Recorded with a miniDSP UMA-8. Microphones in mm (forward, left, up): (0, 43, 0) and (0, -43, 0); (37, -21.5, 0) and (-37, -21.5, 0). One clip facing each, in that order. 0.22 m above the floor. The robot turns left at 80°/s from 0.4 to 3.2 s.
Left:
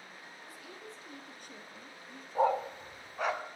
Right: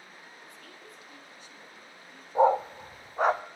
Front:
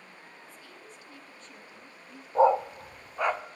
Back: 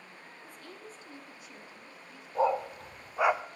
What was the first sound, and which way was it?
A woman speaking, straight behind.